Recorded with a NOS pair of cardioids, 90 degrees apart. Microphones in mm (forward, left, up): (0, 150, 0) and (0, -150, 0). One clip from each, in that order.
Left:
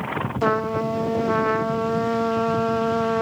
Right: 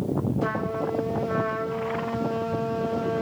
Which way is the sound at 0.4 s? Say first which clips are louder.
Left 9 dB; 40° left.